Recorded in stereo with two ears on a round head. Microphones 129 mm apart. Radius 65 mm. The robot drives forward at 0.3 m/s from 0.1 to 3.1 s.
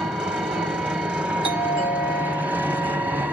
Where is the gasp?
I don't hear a gasp.